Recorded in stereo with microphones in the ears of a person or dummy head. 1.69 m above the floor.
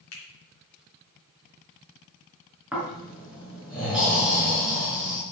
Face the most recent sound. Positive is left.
turn(degrees=-10)  # may be behind; listen again after turning